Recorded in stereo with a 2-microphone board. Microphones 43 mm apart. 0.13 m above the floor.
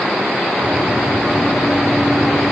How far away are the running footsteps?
About 3 m.